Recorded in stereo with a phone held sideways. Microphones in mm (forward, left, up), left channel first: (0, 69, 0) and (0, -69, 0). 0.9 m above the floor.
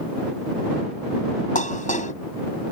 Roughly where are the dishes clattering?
Left.